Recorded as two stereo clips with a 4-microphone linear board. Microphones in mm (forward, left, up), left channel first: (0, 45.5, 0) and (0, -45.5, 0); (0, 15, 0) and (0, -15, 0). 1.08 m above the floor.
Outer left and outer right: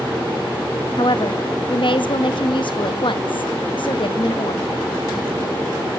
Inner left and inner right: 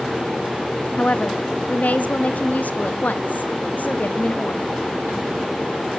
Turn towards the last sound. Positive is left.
turn(degrees=65)  # may be behind; listen again after turning